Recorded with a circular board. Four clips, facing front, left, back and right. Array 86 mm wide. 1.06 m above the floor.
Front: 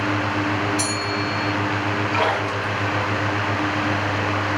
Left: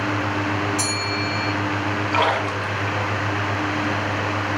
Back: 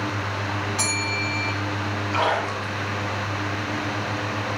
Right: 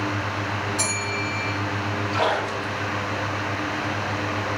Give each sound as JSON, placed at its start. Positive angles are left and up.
{"t": 0.8, "sound": "a bell", "azimuth_deg": 170, "distance_m": 2.0}
{"t": 2.1, "sound": "a splash", "azimuth_deg": 85, "distance_m": 1.5}